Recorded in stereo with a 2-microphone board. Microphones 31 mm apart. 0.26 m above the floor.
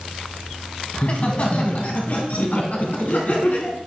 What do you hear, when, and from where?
0.9 s laughter: 40° left (ahead or behind), 1.8 m; by 3.8 s 65° left (ahead or behind), 3 m